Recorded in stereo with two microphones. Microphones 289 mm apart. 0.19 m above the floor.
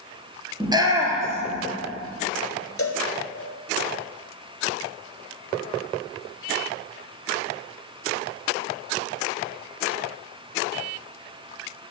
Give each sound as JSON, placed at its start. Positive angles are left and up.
{"t": 0.6, "sound": "a shout", "side_deg": -15, "distance_m": 4.0}
{"t": 2.8, "sound": "a cowbell", "side_deg": 55, "distance_m": 2.0}